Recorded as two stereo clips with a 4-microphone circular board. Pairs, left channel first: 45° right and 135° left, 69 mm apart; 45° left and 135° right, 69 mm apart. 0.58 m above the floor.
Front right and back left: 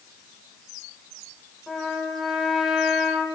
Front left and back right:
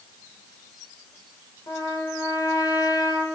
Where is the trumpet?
40° left, 2.5 m.